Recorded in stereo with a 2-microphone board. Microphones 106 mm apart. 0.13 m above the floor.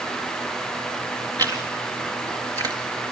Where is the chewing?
35° right (ahead or behind), 1.9 m.